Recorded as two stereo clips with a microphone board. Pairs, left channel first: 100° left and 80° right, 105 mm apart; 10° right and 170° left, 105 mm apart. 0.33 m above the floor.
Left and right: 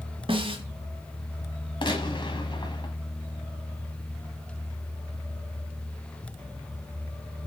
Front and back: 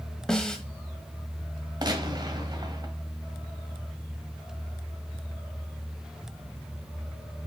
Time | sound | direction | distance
0.3 | a snare drum | 95° right | 1.3 m
1.8 | a gunshot | 130° left | 1.4 m